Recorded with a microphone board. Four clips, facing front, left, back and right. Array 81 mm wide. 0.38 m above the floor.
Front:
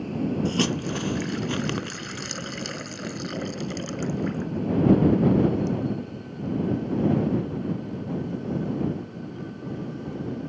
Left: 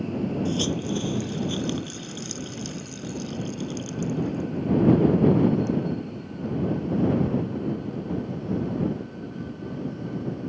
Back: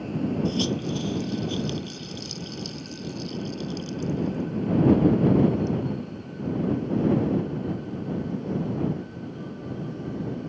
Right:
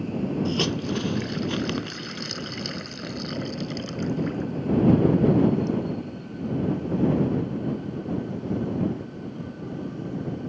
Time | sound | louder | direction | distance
0.5 | a hiss | even, front 1 dB | 25° right | ?